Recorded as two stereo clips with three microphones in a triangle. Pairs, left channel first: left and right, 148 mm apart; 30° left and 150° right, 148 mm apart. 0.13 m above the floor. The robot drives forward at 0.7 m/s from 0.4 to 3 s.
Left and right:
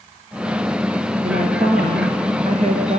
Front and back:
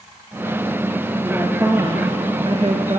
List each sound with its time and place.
1.2 s a woman speaking: 85° right, 2.5 m; by 3.0 s 115° right, 2.5 m